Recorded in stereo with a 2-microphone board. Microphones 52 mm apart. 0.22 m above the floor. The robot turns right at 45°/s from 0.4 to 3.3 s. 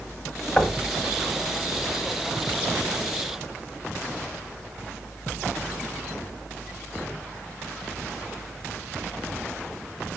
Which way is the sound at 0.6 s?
25° left (ahead or behind).